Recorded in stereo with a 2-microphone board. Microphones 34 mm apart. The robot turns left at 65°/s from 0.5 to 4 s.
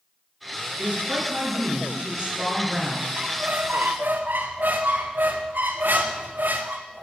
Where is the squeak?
30° right, 1.1 m; by 7.0 s 85° right, 1.1 m.